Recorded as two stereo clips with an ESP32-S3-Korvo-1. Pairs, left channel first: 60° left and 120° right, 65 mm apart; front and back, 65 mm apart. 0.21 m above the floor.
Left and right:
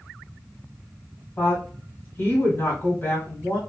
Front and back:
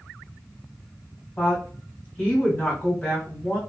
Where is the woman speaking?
50° left, 1.8 m.